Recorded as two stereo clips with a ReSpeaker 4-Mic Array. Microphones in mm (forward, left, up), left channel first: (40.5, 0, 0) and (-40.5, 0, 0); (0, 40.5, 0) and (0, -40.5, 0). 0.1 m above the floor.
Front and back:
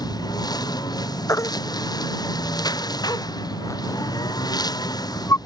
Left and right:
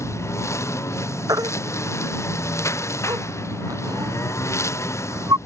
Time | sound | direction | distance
0.0 | a lawn mower | 35° left | ?
1.3 | a baby crying | 50° right | ?